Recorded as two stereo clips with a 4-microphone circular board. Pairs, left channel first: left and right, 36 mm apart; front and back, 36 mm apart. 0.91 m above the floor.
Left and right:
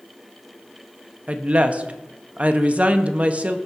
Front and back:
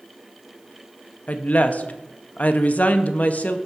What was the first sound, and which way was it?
A woman speaking, 40° right.